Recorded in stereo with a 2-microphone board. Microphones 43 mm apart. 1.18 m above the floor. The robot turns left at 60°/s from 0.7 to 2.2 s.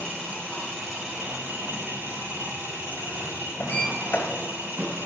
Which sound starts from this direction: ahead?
An engine running, at 0.0 s.